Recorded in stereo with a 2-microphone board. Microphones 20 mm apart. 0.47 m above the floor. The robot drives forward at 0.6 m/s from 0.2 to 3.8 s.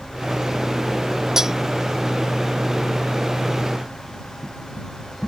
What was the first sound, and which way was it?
Cutlery clinking, 25° right (ahead or behind).